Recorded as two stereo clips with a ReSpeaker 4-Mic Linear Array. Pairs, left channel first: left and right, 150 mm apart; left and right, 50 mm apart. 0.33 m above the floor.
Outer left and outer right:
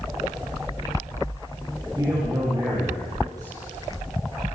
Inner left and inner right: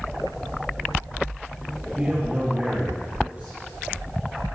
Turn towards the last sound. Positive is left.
turn(degrees=-25)  # may be behind; listen again after turning